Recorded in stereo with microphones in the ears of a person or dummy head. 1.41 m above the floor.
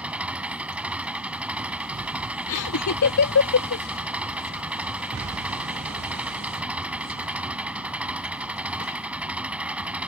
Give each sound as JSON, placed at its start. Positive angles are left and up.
{"t": 0.0, "sound": "an engine running", "side_deg": -5}
{"t": 2.5, "sound": "laughter", "side_deg": 75}